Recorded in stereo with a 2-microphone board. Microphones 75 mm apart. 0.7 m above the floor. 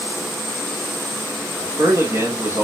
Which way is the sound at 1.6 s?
35° right (ahead or behind).